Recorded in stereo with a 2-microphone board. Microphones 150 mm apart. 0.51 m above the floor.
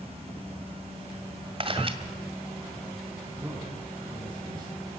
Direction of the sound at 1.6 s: 35° right (ahead or behind).